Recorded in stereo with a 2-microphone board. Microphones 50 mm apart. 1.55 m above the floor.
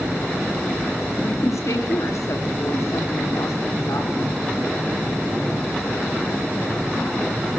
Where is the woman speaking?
85° left, 4 m; by 4.4 s 75° left (ahead or behind), 6 m.